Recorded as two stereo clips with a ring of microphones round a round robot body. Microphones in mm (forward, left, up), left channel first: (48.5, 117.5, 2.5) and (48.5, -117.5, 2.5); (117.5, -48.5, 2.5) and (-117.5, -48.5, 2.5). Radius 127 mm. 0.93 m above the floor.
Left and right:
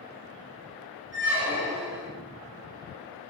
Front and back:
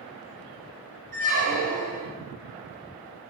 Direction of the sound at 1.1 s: 130° right.